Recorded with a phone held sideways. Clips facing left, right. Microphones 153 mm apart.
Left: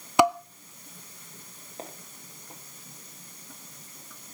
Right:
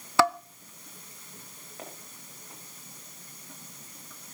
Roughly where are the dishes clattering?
Centre.